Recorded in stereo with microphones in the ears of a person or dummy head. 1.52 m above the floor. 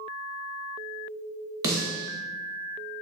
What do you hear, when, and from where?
1.6 s a snare drum: 20° right (ahead or behind), 0.9 m